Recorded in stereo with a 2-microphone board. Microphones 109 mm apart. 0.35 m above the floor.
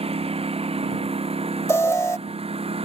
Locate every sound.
0.0 s a lawn mower: 60° right (ahead or behind)
1.7 s an alarm: 25° left (ahead or behind)